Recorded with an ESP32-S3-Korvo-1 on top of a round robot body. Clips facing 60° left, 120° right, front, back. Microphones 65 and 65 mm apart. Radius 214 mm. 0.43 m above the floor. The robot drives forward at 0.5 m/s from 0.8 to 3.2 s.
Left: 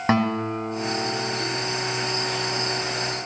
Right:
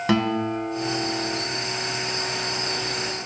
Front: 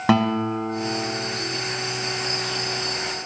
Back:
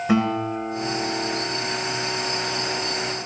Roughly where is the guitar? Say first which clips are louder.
Left 1 dB, front 2 dB; ahead.